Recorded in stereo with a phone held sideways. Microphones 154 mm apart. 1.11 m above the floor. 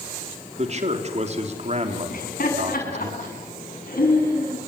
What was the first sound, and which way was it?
A man speaking, 45° right (ahead or behind).